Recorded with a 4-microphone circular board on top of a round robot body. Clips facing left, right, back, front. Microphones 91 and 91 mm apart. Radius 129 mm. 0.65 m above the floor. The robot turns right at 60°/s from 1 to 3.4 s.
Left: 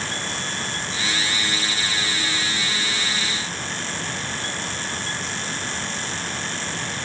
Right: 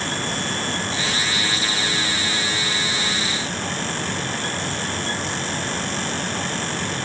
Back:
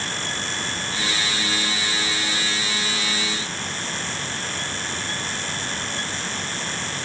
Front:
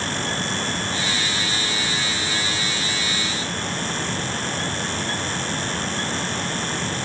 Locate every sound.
Only background noise.